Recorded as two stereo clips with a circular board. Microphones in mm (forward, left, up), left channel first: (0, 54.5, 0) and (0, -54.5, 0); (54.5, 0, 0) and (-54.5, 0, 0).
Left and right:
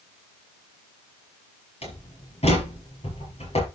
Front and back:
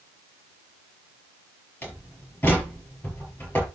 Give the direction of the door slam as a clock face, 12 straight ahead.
10 o'clock.